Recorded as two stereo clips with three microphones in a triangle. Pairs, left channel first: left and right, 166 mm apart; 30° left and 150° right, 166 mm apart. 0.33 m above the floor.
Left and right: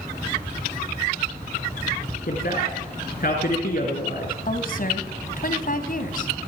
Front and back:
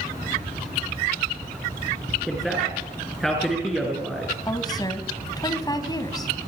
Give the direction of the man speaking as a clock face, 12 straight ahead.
8 o'clock.